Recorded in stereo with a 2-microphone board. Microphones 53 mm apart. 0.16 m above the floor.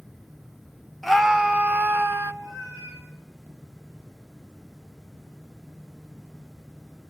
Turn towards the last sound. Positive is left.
turn(degrees=-85)